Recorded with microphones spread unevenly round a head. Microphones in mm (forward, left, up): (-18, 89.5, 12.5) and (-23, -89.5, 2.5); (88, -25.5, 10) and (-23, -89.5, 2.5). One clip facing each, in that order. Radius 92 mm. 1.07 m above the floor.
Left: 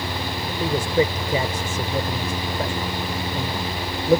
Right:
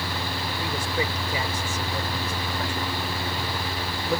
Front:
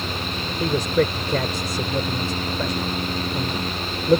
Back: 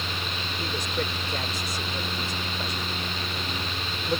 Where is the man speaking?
25° left.